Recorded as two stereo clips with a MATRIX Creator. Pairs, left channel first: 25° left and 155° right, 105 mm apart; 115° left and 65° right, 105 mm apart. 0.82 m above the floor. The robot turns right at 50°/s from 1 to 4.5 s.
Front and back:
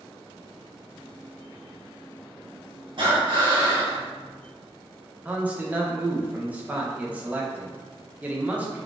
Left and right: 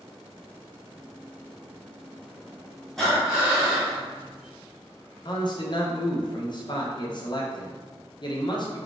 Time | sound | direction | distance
3.0 | breathing | 165° right | 1.0 m
5.2 | a man speaking | 130° left | 0.5 m